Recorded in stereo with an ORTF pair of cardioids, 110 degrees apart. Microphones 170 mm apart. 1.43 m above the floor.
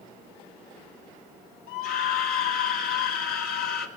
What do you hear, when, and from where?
1.7 s a scream: 60° left, 5 m